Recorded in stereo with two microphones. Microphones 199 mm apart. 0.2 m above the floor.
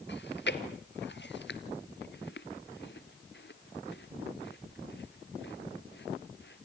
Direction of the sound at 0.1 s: 65° left (ahead or behind).